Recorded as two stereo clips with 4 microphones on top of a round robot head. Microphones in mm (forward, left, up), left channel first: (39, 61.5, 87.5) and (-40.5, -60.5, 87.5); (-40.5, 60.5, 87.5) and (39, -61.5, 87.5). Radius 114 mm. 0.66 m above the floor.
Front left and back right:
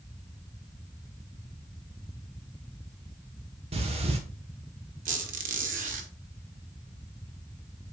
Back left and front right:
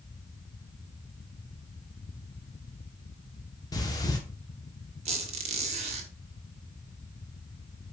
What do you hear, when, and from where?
3.7 s breathing: 170° right, 1.0 m
5.0 s a squeak: 95° right, 1.0 m